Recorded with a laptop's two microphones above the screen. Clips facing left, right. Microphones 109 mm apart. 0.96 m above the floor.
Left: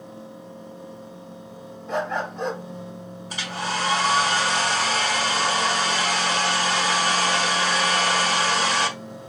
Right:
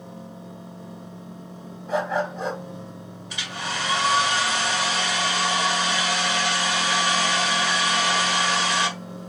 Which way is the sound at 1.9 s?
Centre (ahead or behind).